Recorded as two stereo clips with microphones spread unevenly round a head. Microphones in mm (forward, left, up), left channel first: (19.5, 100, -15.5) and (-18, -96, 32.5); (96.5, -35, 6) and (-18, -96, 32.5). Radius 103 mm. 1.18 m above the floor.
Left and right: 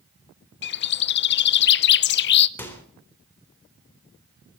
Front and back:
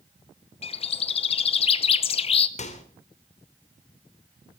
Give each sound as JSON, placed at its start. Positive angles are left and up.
{"t": 0.6, "sound": "a bird", "azimuth_deg": 65, "distance_m": 0.6}
{"t": 2.6, "sound": "a microwave", "azimuth_deg": 0, "distance_m": 3.5}